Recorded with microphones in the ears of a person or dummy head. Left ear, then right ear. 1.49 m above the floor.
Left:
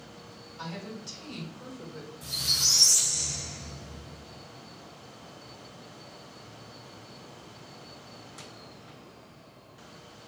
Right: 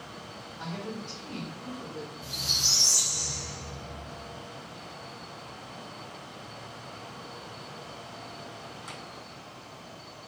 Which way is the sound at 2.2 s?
45° left (ahead or behind).